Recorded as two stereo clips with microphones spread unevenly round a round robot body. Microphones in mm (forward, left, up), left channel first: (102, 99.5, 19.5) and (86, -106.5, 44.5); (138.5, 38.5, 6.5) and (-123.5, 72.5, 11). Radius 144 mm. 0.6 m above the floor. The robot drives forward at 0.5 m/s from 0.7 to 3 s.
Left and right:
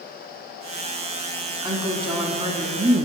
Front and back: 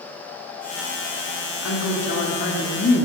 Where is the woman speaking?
20° right, 1.6 m; by 3.0 s 40° right, 1.1 m.